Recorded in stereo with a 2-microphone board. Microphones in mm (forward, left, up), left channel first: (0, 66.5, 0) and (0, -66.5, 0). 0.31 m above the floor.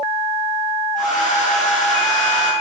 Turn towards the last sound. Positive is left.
turn(degrees=70)  # may be behind; listen again after turning